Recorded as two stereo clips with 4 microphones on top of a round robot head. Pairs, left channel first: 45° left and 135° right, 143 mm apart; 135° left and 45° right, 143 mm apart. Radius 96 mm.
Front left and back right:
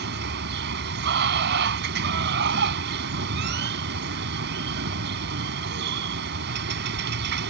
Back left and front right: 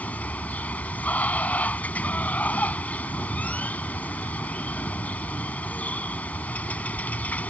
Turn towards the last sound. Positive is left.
turn(degrees=-145)